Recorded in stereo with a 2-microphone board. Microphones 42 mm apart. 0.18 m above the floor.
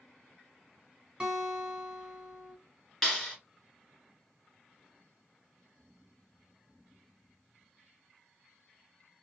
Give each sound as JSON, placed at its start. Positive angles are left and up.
{"t": 1.2, "sound": "a guitar", "side_deg": -25, "distance_m": 1.2}
{"t": 3.0, "sound": "a clap", "side_deg": 0, "distance_m": 1.8}